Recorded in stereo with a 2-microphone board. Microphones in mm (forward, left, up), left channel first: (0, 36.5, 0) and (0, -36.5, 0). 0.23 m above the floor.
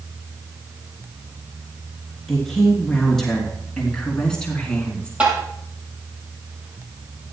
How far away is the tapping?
About 6 m.